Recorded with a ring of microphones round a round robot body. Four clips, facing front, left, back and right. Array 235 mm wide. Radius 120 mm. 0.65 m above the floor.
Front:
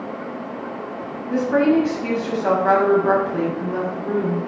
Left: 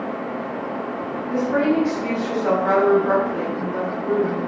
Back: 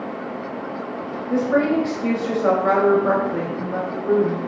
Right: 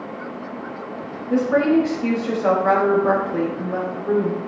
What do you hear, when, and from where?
1.3 s a woman speaking: 135° right, 4 m